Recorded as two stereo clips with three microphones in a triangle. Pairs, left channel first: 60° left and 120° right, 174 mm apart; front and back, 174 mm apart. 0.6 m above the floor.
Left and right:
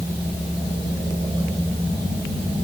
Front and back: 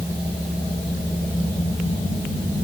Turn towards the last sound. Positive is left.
No sound to turn to.